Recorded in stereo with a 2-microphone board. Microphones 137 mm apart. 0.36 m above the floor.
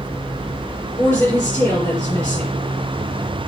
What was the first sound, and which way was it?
A woman speaking, 25° left (ahead or behind).